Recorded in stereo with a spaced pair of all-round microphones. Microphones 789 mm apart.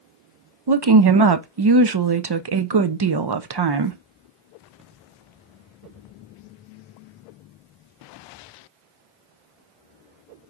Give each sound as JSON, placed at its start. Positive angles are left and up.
{"t": 0.7, "sound": "a woman speaking", "side_deg": -35, "distance_m": 0.5}